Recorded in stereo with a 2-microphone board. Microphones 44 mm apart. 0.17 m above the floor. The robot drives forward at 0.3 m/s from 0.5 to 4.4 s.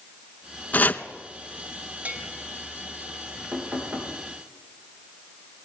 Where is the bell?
35° right (ahead or behind), 3 m.